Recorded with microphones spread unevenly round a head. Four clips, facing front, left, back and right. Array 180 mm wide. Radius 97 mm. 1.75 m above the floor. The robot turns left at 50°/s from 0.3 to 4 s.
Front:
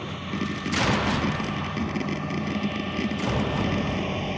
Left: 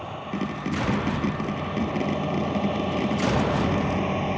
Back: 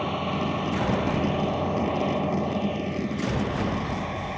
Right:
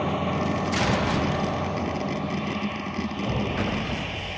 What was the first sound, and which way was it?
A vehicle, 110° right.